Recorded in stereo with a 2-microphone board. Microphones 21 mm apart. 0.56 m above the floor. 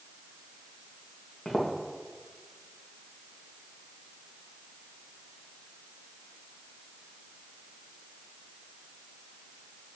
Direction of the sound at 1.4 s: 30° left (ahead or behind).